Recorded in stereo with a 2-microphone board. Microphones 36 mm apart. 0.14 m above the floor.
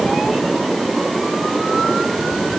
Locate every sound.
Only background noise.